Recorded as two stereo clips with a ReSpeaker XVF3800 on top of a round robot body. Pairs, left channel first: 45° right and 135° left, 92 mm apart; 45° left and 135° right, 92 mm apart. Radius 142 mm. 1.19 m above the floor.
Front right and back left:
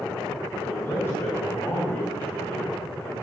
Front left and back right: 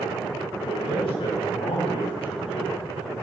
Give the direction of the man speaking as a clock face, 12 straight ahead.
11 o'clock.